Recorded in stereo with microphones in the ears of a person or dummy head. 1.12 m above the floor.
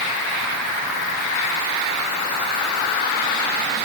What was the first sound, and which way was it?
Only background noise.